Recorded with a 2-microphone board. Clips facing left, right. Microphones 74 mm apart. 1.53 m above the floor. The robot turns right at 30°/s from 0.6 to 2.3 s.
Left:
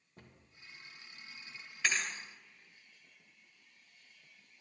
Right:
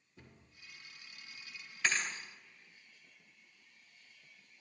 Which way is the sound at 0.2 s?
50° left (ahead or behind).